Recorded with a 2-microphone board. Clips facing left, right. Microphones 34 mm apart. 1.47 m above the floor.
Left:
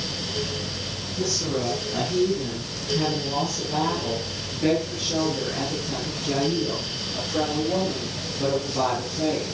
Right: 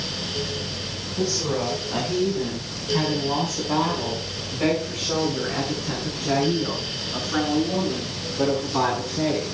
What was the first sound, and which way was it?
A woman speaking, 40° right (ahead or behind).